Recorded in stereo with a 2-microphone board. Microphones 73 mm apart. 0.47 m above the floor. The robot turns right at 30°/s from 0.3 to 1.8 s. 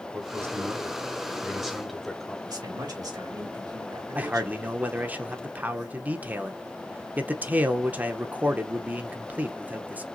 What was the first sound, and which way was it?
A man speaking, 45° right.